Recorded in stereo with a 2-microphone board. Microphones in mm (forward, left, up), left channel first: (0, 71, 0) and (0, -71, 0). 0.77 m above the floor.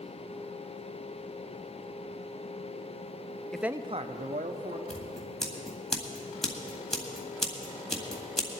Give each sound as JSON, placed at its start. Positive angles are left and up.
{"t": 3.5, "sound": "a man speaking", "side_deg": 5, "distance_m": 0.6}
{"t": 4.9, "sound": "scissors", "side_deg": 5, "distance_m": 1.9}